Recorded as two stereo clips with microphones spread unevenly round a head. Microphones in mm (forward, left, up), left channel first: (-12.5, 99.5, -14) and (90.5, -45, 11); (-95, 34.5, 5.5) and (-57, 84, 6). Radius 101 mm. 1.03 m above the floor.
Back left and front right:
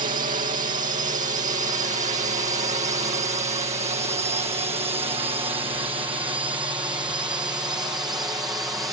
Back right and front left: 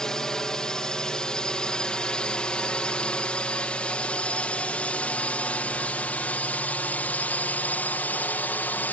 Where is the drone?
50° right; by 8.9 s 125° right.